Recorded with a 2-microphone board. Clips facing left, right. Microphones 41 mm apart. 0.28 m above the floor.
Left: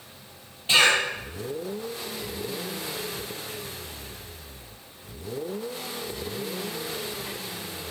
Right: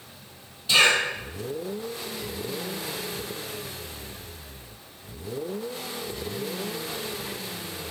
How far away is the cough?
About 1.2 m.